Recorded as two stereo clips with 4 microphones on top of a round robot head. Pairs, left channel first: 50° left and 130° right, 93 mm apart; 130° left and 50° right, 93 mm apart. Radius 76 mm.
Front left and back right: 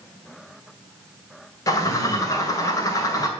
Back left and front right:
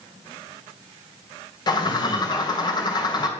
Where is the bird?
95° left, 2.5 m.